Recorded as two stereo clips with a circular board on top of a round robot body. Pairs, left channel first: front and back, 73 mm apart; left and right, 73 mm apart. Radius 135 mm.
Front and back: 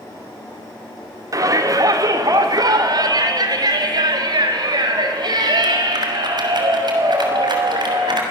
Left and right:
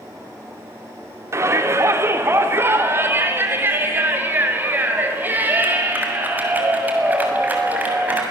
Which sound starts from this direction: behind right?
A shout, at 1.3 s.